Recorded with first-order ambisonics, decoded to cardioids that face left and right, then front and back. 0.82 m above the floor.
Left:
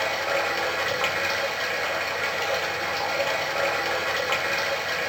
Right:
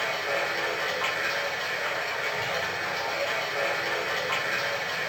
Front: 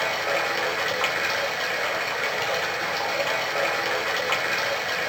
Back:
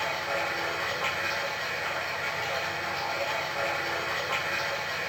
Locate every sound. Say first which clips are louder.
0.0 s running water: left 3 dB, front 5 dB; 25° left, 0.8 m